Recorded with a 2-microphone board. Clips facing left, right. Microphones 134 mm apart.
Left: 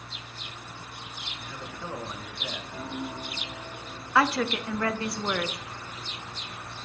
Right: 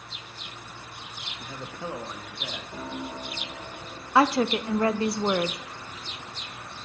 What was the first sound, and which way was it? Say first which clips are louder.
A man speaking: right 3 dB; 40° right (ahead or behind).